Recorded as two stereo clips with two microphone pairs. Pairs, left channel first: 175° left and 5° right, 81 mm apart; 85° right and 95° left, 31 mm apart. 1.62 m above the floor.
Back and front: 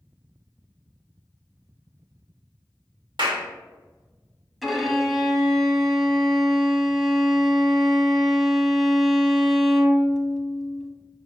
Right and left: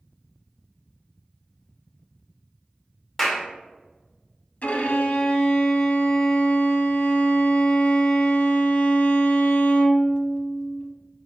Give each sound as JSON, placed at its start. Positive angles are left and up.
{"t": 3.2, "sound": "a clap", "azimuth_deg": 0, "distance_m": 1.0}
{"t": 4.6, "sound": "a violin", "azimuth_deg": -90, "distance_m": 0.6}